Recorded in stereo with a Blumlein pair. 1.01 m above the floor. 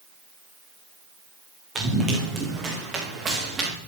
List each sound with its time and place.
1.8 s running footsteps: 15° right, 3 m